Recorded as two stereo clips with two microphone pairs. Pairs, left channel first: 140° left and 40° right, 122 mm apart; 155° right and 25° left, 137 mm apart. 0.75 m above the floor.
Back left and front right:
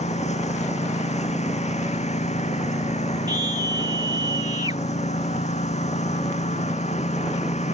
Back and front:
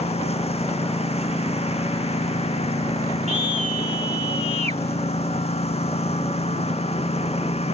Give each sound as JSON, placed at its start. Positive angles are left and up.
{"t": 0.0, "sound": "a lawn mower", "azimuth_deg": 160}
{"t": 3.3, "sound": "a scream", "azimuth_deg": 10}